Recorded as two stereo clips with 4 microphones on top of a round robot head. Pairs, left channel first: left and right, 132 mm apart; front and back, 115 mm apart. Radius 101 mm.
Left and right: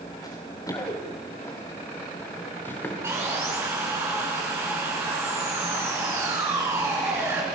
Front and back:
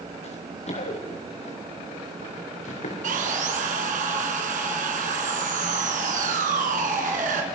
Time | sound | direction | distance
0.2 | running footsteps | 30° left | 7.5 m
3.0 | sawing | 165° right | 4.5 m